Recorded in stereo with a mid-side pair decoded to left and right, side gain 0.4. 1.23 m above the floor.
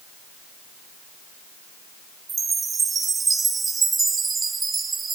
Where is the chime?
40° right, 2.5 m.